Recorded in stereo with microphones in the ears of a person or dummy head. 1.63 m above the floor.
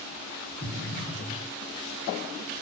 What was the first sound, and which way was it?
An explosion, 25° left (ahead or behind).